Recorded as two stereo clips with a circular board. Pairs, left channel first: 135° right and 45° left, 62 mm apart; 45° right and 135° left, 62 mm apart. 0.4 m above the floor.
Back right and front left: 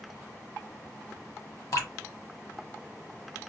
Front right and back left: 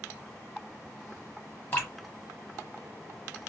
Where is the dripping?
105° right, 1.5 m.